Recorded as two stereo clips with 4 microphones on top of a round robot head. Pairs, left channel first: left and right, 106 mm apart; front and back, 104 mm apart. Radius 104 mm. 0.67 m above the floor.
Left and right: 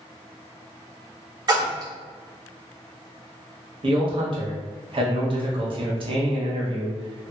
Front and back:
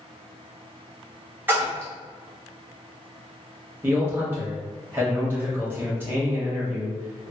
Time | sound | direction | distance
1.5 | a splash | 115° right | 1.3 m
3.8 | a man speaking | 110° right | 1.1 m